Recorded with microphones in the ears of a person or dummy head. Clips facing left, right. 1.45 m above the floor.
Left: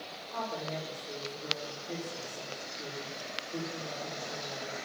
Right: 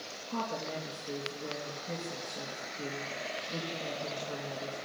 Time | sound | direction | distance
0.3 | a woman speaking | 60° right (ahead or behind) | 3 m